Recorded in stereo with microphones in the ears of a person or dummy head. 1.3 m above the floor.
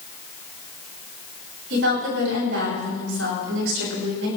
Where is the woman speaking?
75° right (ahead or behind), 7 m.